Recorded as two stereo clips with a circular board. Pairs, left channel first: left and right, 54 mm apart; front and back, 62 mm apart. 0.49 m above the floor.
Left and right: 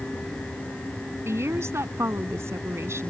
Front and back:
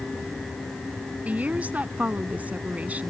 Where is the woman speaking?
115° right.